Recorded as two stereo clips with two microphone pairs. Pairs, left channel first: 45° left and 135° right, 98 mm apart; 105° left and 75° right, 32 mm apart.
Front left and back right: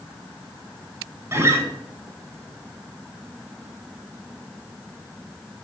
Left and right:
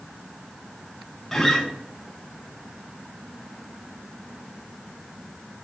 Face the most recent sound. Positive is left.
turn(degrees=180)